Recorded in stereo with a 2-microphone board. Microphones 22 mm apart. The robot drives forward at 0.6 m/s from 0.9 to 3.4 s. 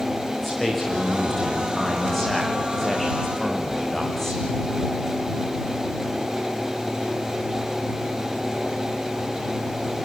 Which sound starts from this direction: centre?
A man speaking, at 0.4 s.